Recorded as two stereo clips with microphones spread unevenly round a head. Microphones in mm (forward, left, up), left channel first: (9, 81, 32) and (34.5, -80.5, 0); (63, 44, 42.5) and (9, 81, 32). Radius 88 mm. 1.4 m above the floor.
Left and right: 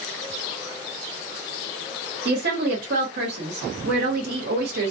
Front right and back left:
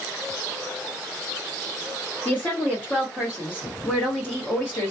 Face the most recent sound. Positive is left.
turn(degrees=-115)